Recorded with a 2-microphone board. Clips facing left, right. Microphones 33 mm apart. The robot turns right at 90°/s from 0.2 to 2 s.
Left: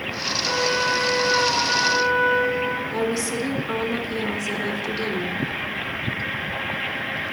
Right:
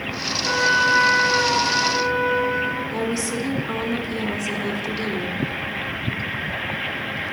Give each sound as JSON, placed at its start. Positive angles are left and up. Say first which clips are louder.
{"t": 0.4, "sound": "a trumpet", "louder": "right 5 dB", "azimuth_deg": -145, "distance_m": 2.5}
{"t": 2.9, "sound": "a woman speaking", "louder": "even", "side_deg": -5, "distance_m": 1.4}